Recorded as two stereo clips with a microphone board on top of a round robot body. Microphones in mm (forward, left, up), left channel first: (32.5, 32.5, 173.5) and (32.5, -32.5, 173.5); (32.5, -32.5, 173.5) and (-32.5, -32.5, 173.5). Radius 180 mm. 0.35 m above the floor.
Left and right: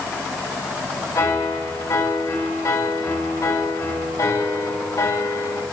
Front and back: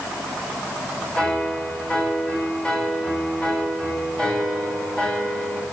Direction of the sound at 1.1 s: 75° left.